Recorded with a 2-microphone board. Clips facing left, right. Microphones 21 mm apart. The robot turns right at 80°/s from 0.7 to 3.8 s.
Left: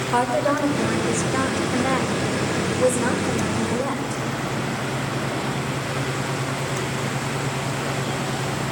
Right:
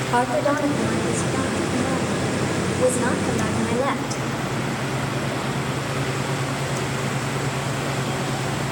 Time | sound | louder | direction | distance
0.1 | a woman speaking | even | 10° left | 3.5 m